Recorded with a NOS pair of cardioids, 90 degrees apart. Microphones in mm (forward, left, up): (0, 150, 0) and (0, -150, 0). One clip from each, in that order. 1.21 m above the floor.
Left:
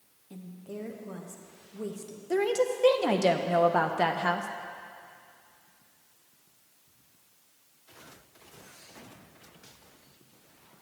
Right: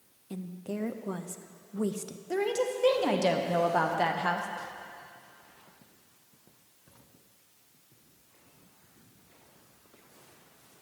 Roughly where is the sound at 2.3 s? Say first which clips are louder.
Left 3 dB; ahead.